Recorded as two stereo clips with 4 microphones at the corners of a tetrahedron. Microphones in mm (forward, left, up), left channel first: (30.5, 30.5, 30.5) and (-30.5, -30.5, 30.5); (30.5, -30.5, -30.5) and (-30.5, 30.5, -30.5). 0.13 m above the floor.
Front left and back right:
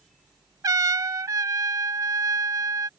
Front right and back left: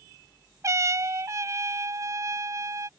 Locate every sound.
0.6 s a trumpet: 175° right